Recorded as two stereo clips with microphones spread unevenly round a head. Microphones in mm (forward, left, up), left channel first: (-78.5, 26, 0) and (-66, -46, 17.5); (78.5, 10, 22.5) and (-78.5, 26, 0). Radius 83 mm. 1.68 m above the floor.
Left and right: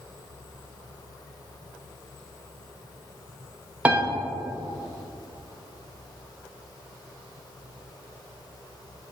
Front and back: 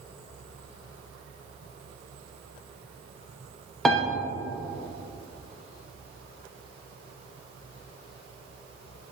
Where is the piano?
80° right, 0.7 m.